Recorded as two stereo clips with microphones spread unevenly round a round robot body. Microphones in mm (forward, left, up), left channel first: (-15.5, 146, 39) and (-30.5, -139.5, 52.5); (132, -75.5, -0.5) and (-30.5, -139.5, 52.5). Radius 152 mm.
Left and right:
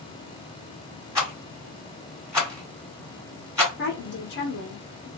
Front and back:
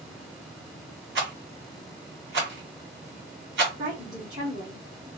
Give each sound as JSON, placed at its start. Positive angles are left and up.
{"t": 1.1, "sound": "a rattle", "azimuth_deg": -170, "distance_m": 1.8}
{"t": 3.8, "sound": "a woman speaking", "azimuth_deg": 120, "distance_m": 1.0}